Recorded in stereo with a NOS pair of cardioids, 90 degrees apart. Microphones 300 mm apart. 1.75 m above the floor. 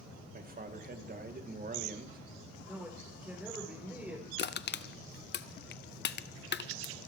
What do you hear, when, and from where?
0.3 s a man speaking: 30° right, 2.5 m
2.6 s a man speaking: 5° right, 5.5 m
4.4 s crushing: 35° left, 0.7 m